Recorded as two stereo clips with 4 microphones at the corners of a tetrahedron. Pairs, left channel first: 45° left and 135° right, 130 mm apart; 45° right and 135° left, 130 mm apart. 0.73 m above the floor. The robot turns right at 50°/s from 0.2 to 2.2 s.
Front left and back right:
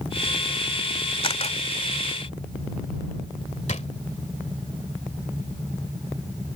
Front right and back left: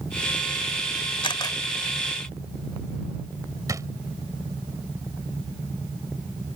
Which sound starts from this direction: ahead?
A camera shutter, at 1.2 s.